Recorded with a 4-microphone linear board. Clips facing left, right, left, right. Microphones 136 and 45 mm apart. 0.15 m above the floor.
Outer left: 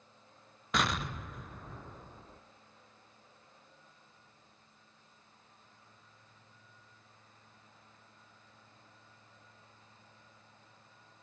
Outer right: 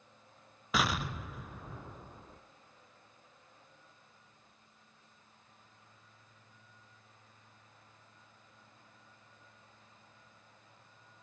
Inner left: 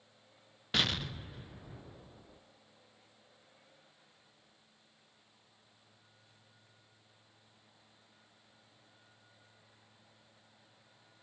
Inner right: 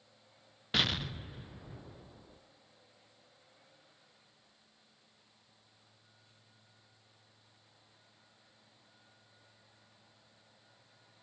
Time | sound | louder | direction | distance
0.7 | an explosion | even, even | 5° right (ahead or behind) | 0.9 m